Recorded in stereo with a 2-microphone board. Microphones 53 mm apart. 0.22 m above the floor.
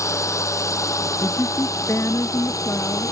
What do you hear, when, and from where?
0.0 s a drone: 65° left (ahead or behind); by 3.1 s 80° left
1.2 s a woman speaking: 55° left (ahead or behind)